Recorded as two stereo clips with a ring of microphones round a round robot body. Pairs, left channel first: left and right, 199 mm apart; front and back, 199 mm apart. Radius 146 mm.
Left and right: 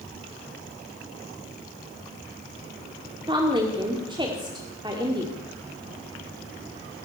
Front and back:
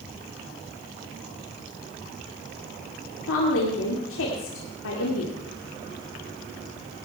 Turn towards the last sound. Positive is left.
turn(degrees=-25)